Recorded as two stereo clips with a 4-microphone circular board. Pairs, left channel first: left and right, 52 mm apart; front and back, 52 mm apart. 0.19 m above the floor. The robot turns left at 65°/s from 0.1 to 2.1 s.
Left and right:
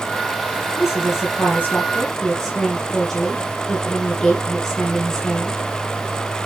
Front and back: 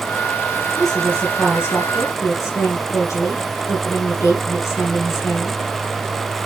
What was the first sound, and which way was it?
A woman speaking, 90° left.